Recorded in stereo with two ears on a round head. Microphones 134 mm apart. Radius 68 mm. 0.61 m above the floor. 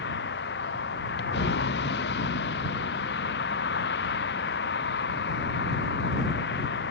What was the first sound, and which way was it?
A vehicle, 90° left.